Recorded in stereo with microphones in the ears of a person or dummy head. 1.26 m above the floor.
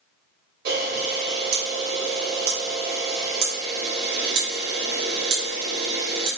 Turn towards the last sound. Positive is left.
turn(degrees=-55)  # may be behind; listen again after turning